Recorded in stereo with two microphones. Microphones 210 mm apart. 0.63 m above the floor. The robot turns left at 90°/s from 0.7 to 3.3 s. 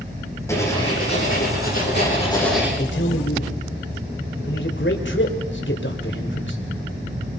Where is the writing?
165° left, 9.5 m; by 2.7 s 10° right, 9.5 m.